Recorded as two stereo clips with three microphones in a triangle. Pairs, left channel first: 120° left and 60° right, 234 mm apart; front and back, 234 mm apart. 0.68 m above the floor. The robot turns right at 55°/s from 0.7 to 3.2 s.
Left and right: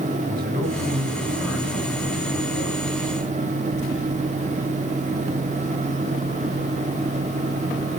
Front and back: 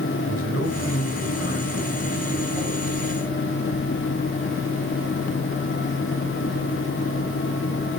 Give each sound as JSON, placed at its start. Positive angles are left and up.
{"t": 0.3, "sound": "a man speaking", "azimuth_deg": -15, "distance_m": 5.5}